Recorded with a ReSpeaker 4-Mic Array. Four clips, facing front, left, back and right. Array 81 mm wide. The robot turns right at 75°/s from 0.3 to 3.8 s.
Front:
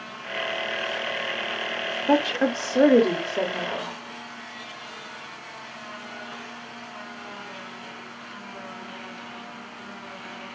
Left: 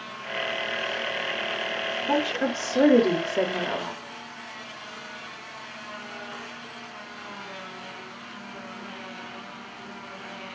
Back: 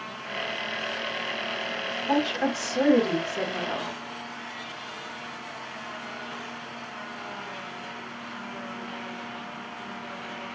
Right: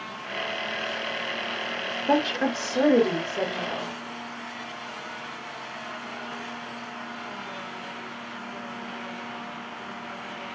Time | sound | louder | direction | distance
2.1 | a woman speaking | right 2 dB, front 4 dB | 35° right | 1.0 m